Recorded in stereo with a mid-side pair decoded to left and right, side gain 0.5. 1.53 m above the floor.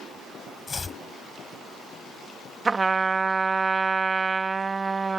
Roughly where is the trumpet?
Ahead right.